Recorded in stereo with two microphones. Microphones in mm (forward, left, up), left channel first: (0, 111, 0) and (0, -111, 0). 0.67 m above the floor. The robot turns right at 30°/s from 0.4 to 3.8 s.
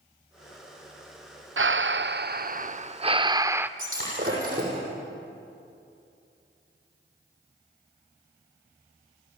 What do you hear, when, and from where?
1.6 s breathing: 75° right, 0.5 m; by 3.7 s 10° right, 0.5 m
3.8 s breaking glass: 40° right (ahead or behind), 6.5 m